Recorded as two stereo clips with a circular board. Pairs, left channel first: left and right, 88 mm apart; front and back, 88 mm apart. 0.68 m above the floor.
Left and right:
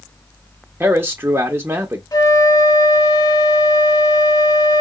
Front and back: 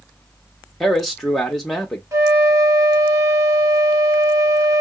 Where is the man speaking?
85° right, 0.7 m.